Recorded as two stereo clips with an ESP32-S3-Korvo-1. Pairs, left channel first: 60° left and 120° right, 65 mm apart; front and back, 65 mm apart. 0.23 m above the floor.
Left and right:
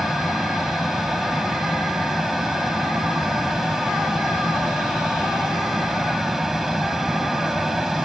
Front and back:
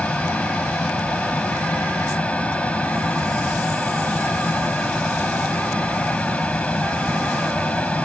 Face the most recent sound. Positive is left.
turn(degrees=-40)